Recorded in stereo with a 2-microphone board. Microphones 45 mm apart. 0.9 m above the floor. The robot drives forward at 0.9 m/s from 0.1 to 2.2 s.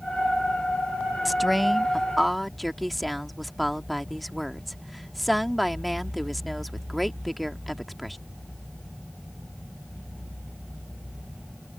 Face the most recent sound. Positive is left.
turn(degrees=0)  # may be behind; listen again after turning